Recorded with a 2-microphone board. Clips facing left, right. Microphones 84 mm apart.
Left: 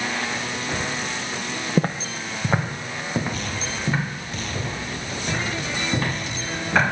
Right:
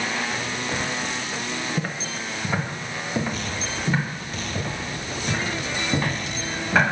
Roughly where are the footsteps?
Left.